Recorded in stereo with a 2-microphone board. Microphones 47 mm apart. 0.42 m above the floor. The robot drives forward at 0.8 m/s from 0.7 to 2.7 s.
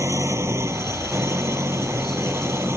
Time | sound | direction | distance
0.0 | an engine running | 75° right (ahead or behind) | ?